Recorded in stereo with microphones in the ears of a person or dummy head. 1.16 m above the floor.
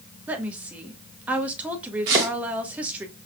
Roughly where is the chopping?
Right.